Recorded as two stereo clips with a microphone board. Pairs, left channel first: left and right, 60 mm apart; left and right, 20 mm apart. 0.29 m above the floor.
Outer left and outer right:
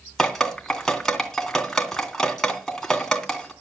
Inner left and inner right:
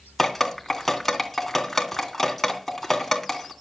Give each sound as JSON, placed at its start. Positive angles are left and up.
{"t": 0.2, "sound": "dripping", "side_deg": 10, "distance_m": 2.5}